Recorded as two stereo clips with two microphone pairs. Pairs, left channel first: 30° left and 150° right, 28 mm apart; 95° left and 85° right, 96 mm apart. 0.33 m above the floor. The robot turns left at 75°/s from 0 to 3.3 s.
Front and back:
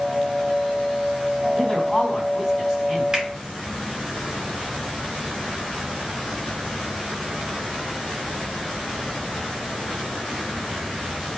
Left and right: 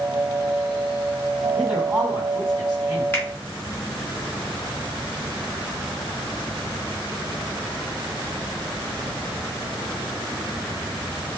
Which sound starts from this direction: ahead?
A man speaking, at 1.6 s.